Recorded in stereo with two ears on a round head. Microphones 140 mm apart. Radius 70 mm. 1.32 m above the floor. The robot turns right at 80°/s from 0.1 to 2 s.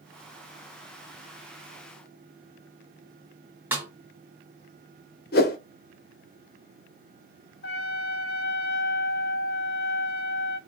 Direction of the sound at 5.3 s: 70° left (ahead or behind).